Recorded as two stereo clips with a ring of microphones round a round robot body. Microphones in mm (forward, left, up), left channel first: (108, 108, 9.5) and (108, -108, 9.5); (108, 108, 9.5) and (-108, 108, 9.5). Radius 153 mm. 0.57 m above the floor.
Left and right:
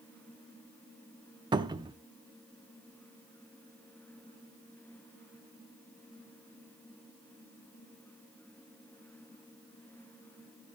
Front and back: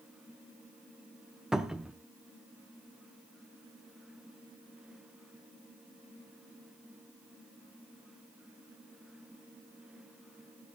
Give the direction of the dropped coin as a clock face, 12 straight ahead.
I don't hear a dropped coin.